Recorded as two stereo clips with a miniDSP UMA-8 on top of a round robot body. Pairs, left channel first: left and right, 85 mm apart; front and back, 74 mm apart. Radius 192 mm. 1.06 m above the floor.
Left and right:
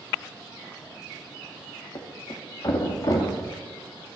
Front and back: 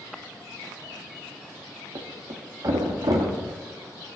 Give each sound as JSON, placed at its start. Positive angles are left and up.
{"t": 1.9, "sound": "a thud", "azimuth_deg": 140, "distance_m": 1.0}